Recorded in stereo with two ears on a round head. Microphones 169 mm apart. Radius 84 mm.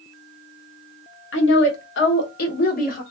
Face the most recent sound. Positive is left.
turn(degrees=45)  # may be behind; listen again after turning